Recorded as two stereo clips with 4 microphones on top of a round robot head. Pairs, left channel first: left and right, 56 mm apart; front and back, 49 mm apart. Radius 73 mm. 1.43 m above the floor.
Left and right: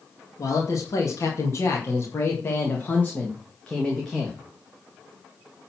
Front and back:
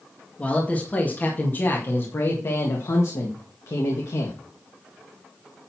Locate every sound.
0.4 s a man speaking: 65° left, 2.5 m; by 4.4 s 5° left, 2.0 m